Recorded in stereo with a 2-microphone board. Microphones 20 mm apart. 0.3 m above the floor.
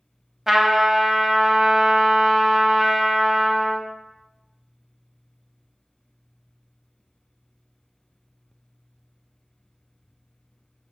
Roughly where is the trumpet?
Centre.